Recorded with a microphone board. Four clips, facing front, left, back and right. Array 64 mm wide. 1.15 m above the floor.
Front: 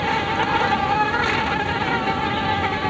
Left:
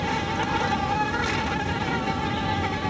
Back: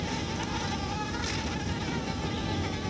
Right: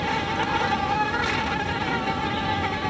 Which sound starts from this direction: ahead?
An insect, at 0.0 s.